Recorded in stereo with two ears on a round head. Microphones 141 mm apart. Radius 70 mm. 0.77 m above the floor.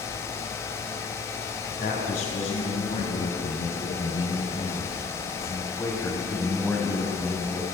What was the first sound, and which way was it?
A man speaking, 65° left (ahead or behind).